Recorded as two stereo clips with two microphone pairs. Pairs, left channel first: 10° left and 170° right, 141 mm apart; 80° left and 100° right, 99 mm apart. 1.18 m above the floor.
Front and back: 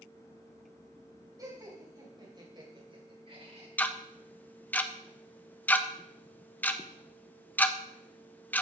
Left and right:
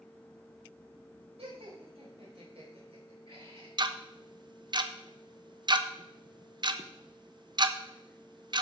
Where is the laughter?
105° right, 6.5 m; by 3.7 s 125° right, 4 m.